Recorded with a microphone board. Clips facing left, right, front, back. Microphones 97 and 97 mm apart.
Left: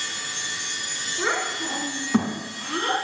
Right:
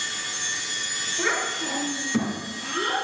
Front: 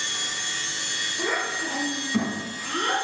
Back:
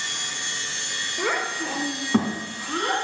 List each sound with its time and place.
1.2 s a child speaking: 165° left, 2.5 m; by 3.0 s 100° left, 1.8 m